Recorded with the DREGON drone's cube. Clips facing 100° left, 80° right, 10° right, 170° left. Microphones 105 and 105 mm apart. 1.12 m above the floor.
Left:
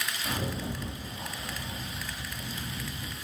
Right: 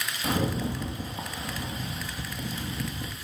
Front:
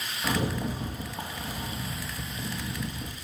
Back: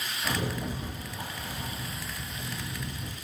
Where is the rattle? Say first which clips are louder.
Right 8 dB, front 3 dB; 65° right, 2 m.